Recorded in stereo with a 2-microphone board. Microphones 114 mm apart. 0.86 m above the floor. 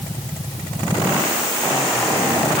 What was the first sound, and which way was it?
Only background noise.